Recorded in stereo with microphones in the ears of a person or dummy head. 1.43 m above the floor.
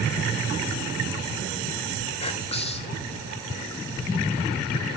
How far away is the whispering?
About 0.6 m.